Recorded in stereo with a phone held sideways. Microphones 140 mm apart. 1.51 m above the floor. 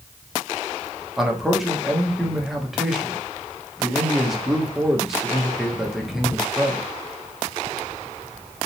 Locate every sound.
1.2 s a man speaking: 5° right (ahead or behind), 1.2 m